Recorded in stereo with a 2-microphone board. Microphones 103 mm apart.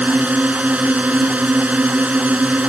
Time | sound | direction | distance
0.0 | a drone | 15° right (ahead or behind) | ?